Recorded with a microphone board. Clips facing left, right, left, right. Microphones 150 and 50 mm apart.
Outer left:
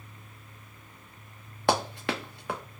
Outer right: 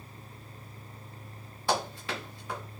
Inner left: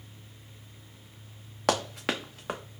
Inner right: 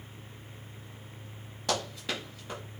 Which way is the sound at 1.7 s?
70° left (ahead or behind).